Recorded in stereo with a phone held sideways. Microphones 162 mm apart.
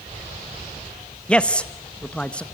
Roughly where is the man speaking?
Centre.